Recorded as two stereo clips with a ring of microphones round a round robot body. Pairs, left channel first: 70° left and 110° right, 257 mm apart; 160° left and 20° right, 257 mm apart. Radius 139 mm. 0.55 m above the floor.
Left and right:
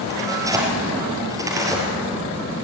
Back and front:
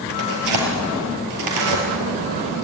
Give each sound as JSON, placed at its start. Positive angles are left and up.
{"t": 0.1, "sound": "tearing paper", "azimuth_deg": -35, "distance_m": 4.5}